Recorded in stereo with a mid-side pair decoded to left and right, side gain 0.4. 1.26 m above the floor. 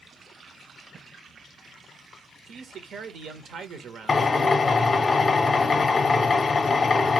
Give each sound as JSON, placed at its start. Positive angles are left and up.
{"t": 2.5, "sound": "a man speaking", "azimuth_deg": -70, "distance_m": 0.8}
{"t": 4.1, "sound": "a drill", "azimuth_deg": 35, "distance_m": 0.6}